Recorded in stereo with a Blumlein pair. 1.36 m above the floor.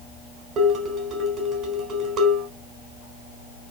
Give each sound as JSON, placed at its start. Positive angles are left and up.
{"t": 0.6, "sound": "dishes clattering", "azimuth_deg": -30, "distance_m": 3.5}